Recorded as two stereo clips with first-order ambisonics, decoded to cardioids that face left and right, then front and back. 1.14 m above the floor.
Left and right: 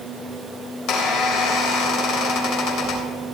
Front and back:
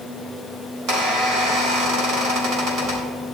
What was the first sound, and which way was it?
A squeak, 130° left.